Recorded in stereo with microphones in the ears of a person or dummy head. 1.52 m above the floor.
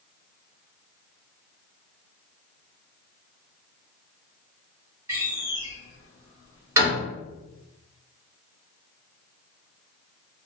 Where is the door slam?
10° right (ahead or behind), 1.2 m.